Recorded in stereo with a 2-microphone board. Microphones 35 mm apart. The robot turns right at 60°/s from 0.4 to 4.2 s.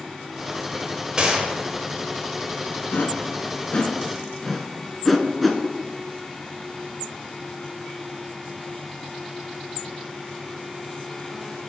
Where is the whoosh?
75° left (ahead or behind), 0.6 m; by 5.6 s centre (ahead or behind), 0.6 m.